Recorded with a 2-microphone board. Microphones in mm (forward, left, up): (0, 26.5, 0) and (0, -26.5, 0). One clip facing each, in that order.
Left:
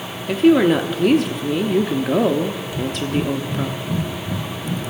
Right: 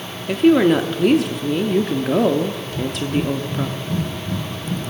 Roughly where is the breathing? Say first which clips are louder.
Even; centre.